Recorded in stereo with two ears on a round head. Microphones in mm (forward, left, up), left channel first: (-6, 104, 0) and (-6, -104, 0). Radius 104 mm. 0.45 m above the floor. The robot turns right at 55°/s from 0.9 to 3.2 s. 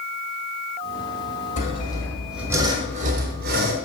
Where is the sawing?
140° left, 1.9 m; by 3.8 s 130° right, 1.9 m.